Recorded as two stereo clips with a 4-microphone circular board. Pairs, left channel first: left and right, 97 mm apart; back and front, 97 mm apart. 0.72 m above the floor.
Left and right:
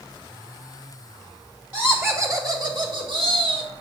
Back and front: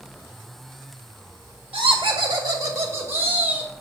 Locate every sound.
1.7 s laughter: 20° right, 1.1 m; by 3.7 s 75° right, 1.7 m